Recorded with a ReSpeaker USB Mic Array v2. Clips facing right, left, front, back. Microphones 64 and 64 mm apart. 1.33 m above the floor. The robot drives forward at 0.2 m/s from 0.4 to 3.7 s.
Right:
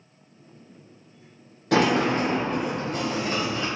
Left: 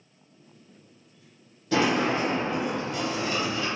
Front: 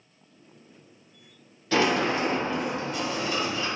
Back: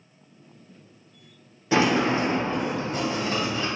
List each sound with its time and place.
1.7 s a sliding door: 110° right, 0.5 m; by 3.7 s 140° right, 0.7 m